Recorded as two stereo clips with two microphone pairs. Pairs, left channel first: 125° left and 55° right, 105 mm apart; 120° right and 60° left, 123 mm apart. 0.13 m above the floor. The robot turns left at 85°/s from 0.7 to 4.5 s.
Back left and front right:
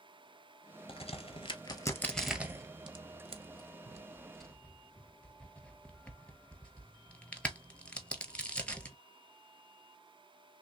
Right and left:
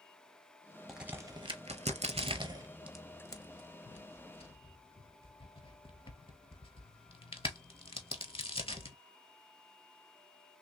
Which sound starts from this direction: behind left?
A crack, at 0.9 s.